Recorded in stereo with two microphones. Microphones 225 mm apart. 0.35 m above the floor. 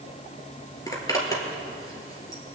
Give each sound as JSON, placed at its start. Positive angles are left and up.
{"t": 0.9, "sound": "a zipper", "side_deg": 15, "distance_m": 1.7}